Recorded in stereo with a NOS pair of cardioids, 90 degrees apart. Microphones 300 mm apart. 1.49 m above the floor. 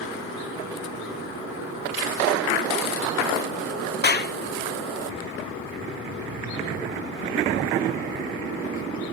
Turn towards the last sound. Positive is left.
turn(degrees=35)